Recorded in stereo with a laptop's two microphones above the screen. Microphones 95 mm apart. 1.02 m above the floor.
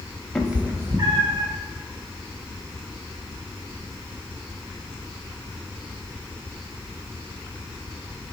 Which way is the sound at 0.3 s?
5° left (ahead or behind).